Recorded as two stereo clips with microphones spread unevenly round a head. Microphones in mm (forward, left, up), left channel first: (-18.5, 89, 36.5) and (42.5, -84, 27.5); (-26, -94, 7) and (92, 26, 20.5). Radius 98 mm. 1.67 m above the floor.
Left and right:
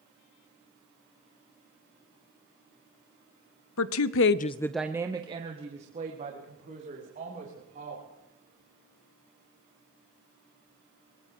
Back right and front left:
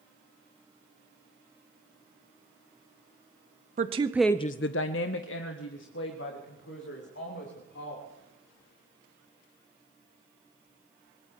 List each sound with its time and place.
3.8 s a woman speaking: 100° left, 0.8 m; by 8.0 s 120° right, 4 m